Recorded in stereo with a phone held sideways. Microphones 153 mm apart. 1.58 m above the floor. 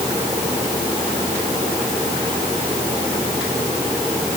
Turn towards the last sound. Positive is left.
No sound to turn to.